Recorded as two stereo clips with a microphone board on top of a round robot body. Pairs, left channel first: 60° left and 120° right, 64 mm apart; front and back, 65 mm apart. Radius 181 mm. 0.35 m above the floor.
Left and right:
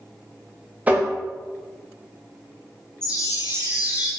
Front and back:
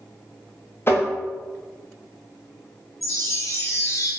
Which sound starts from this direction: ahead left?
A chime, at 3.0 s.